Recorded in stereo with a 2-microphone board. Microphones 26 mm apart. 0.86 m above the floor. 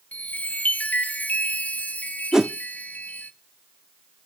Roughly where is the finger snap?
I don't hear a finger snap.